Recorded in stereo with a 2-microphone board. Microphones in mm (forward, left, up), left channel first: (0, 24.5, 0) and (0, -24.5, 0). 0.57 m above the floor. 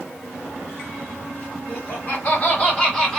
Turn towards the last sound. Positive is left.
turn(degrees=10)  # may be behind; listen again after turning